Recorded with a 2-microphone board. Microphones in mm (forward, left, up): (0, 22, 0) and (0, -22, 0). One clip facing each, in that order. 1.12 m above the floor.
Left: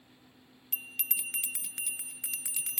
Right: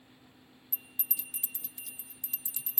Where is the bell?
65° left (ahead or behind).